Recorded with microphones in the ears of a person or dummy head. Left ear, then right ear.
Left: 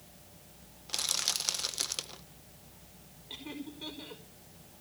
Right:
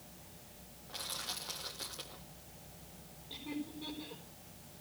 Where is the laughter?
60° left (ahead or behind), 5.5 m.